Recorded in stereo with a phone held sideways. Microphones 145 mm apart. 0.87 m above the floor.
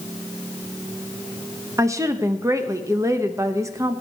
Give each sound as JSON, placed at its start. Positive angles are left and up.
{"t": 1.8, "sound": "a woman speaking", "side_deg": -20, "distance_m": 0.9}